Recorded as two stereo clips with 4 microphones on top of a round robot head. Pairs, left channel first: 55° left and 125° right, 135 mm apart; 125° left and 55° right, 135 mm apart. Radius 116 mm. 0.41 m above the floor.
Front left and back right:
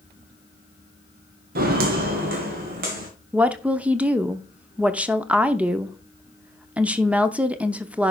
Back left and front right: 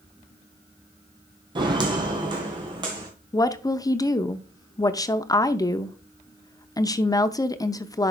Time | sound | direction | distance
1.6 | footsteps | 115° right | 0.9 m
3.3 | a woman speaking | 160° left | 0.8 m